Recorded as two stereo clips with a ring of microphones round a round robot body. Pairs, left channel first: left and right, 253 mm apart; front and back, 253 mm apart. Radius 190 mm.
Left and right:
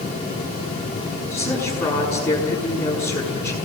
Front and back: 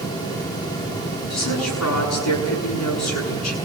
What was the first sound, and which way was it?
A woman speaking, 5° left.